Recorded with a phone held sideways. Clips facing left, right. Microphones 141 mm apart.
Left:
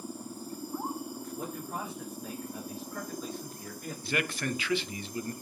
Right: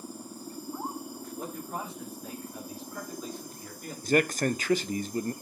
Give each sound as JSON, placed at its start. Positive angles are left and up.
{"t": 1.4, "sound": "a man speaking", "side_deg": 0, "distance_m": 5.5}
{"t": 4.0, "sound": "a man speaking", "side_deg": -45, "distance_m": 0.7}